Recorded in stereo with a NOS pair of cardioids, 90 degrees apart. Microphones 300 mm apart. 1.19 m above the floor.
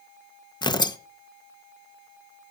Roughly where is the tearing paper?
Ahead.